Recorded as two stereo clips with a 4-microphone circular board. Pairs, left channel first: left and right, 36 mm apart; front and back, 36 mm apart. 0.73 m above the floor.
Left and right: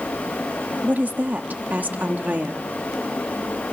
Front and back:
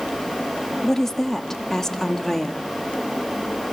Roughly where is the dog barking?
I don't hear a dog barking.